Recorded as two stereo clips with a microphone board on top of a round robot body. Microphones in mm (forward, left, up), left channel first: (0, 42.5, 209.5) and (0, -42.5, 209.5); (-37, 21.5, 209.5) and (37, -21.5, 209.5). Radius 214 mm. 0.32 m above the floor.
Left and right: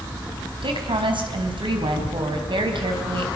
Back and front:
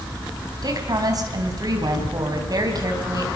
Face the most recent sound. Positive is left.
turn(degrees=-70)